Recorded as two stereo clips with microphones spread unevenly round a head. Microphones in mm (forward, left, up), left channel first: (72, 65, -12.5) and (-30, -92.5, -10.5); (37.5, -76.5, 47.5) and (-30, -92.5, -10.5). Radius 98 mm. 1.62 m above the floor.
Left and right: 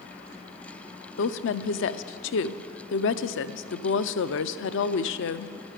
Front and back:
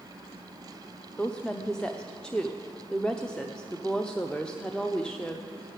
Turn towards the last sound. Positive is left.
turn(degrees=75)